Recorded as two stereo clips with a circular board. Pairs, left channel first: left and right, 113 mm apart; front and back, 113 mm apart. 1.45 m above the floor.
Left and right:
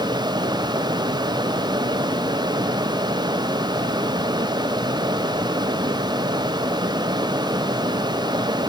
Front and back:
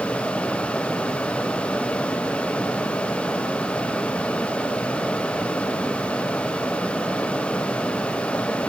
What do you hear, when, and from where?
Only background noise.